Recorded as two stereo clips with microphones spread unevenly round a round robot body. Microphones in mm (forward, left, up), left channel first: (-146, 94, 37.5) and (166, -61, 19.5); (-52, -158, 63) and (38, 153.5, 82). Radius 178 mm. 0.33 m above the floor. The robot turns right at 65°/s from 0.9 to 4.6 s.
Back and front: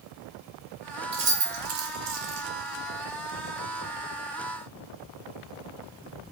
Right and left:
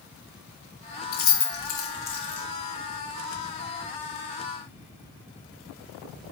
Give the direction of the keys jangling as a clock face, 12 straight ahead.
3 o'clock.